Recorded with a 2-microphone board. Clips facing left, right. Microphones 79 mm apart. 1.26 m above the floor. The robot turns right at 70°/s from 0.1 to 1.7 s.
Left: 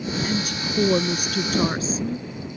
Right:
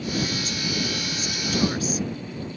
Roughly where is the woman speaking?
Ahead left.